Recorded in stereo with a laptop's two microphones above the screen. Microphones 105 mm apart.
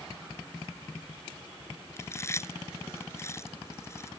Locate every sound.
2.0 s chewing: 25° left (ahead or behind)